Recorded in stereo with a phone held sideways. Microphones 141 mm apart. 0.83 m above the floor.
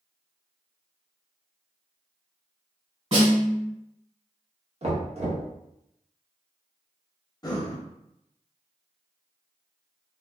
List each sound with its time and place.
3.1 s a snare drum: 50° right (ahead or behind), 1.6 m
4.8 s knocking: 50° right (ahead or behind), 0.9 m
7.4 s breathing: 30° left (ahead or behind), 0.7 m